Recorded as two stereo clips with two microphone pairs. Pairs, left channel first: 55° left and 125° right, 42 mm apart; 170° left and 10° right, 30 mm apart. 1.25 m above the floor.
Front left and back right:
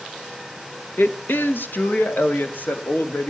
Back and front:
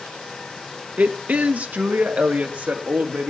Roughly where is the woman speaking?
Ahead.